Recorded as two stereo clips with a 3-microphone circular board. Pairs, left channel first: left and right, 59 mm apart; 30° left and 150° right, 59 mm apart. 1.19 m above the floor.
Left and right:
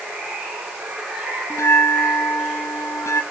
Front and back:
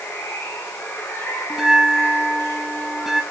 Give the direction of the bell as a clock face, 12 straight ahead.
8 o'clock.